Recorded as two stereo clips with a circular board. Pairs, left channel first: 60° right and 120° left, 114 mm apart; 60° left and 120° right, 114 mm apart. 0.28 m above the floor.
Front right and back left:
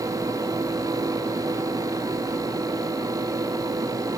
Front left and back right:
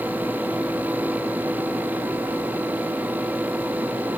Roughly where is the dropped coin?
No dropped coin in this recording.